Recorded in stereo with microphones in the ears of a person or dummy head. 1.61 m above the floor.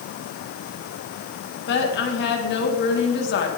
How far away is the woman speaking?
About 2.5 m.